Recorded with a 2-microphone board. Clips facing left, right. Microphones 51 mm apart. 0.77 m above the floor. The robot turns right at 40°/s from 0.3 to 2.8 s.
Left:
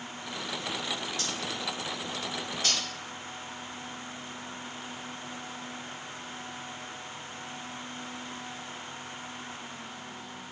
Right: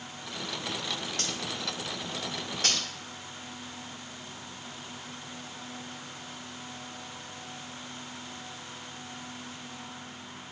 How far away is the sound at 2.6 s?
About 2 m.